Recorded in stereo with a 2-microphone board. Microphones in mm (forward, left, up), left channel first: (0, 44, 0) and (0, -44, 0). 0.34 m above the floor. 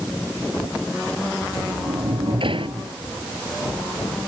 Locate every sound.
1.4 s a sliding door: 70° right (ahead or behind)